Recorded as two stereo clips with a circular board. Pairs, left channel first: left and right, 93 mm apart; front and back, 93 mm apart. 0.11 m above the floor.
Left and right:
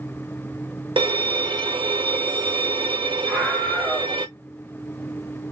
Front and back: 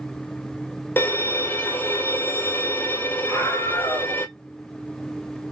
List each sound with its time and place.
1.0 s a violin: 65° right, 0.7 m
3.3 s a scream: 10° left, 1.6 m